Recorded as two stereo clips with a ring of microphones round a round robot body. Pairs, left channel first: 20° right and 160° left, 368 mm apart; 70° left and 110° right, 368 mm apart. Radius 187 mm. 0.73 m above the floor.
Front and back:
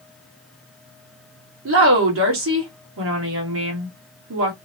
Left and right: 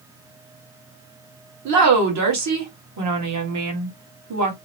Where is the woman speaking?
150° right, 1.4 m.